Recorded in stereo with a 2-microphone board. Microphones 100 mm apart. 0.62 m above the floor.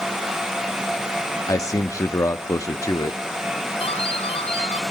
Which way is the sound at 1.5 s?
30° left (ahead or behind).